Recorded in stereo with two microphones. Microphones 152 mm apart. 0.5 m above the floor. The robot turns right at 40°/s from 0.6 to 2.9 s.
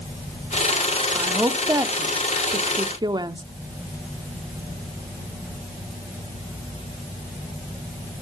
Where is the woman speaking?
10° right (ahead or behind), 0.7 m; by 3.4 s 25° right (ahead or behind), 0.7 m.